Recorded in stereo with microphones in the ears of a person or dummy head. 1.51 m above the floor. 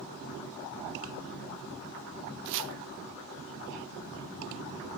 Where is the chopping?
65° right (ahead or behind), 0.7 m.